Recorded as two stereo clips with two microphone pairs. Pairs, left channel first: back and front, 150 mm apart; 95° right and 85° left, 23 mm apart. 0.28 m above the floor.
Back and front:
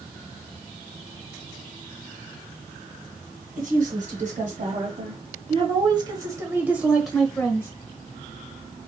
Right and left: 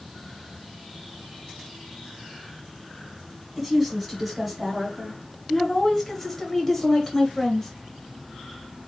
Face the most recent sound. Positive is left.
turn(degrees=-140)